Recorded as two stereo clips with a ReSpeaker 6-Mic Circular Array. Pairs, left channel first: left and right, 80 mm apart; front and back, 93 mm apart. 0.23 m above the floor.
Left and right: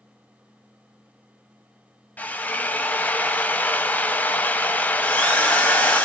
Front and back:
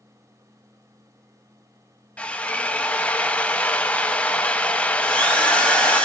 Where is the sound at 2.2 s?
55° left, 0.6 m.